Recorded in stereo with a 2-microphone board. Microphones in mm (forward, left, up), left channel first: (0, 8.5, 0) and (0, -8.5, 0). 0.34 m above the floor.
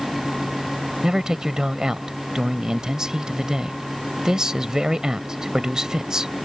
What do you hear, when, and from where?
1.0 s a man speaking: 40° right (ahead or behind)